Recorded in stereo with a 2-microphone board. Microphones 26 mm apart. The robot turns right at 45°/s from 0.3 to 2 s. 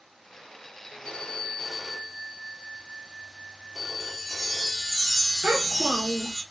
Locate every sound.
1.0 s a phone ringing: 130° left, 0.8 m; by 5.0 s 175° left, 0.8 m
4.0 s a chime: 5° left (ahead or behind), 0.9 m
5.4 s a child speaking: 65° right (ahead or behind), 2.0 m